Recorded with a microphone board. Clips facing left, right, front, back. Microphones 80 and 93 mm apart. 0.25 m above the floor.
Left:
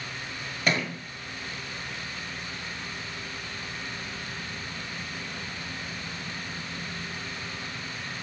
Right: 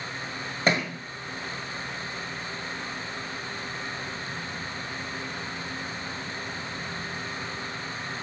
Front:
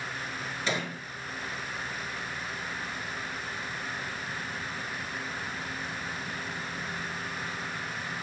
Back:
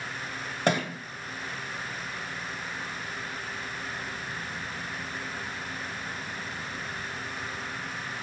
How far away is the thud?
About 0.8 m.